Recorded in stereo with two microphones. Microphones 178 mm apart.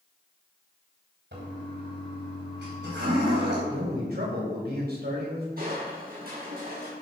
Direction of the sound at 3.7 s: 65° right (ahead or behind).